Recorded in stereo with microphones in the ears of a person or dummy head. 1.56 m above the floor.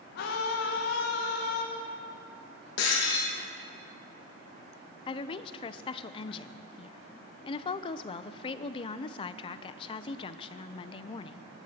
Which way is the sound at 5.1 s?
30° left (ahead or behind).